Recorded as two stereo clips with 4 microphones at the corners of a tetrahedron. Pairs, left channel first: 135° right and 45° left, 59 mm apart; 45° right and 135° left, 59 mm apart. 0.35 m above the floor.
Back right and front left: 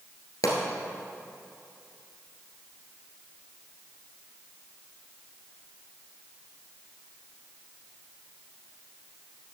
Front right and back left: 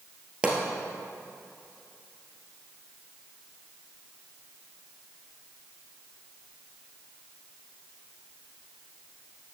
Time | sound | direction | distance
0.4 | a pop | 150° right | 2.0 m